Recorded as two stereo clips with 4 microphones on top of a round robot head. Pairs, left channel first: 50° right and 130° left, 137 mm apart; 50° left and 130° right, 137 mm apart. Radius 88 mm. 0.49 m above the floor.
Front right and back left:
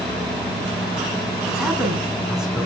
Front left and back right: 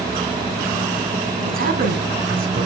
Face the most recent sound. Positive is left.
turn(degrees=-145)